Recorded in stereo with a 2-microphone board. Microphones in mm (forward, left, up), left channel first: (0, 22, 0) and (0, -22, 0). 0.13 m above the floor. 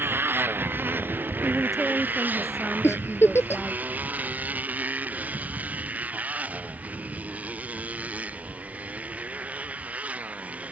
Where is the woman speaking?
5° left (ahead or behind).